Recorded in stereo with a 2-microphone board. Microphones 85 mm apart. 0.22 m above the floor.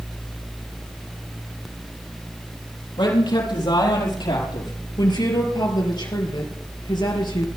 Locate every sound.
3.0 s a man speaking: 65° left (ahead or behind), 6.5 m
5.0 s a woman speaking: 55° left (ahead or behind), 4.5 m